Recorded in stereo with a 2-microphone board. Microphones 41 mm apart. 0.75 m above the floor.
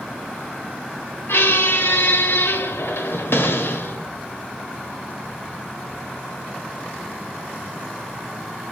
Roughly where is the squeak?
Left.